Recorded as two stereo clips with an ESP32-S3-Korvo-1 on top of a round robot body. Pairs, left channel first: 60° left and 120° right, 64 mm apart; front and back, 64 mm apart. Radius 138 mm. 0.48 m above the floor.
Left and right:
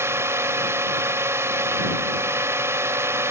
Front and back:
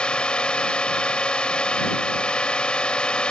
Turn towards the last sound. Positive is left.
turn(degrees=-75)